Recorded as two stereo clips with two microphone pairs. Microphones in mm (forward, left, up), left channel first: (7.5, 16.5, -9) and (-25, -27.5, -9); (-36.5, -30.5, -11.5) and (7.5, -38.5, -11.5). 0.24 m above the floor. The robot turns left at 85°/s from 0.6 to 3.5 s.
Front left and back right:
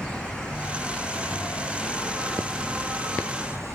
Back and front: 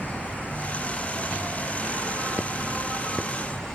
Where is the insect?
120° left, 5.5 m; by 3.8 s 125° right, 5.5 m.